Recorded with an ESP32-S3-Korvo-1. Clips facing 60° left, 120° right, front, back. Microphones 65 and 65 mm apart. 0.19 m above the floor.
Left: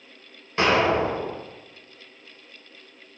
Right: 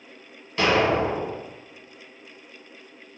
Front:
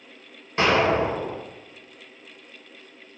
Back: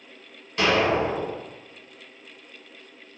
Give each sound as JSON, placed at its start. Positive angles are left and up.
{"t": 0.6, "sound": "an explosion", "azimuth_deg": 20, "distance_m": 1.0}